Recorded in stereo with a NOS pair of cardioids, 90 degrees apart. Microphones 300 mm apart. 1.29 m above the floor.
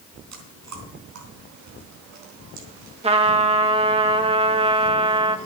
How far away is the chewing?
About 3.5 m.